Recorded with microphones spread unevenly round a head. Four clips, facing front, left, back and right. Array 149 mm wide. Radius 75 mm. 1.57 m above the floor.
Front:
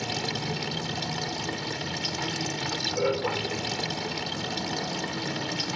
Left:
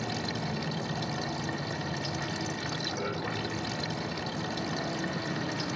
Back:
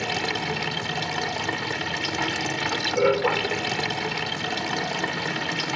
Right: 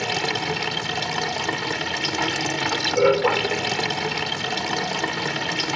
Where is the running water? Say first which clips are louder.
Right 8 dB, back 4 dB; 110° right.